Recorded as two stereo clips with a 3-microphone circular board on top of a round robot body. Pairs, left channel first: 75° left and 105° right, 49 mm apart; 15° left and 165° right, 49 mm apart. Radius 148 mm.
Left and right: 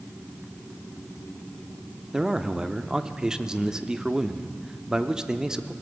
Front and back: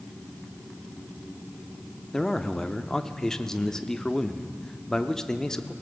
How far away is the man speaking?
About 0.9 m.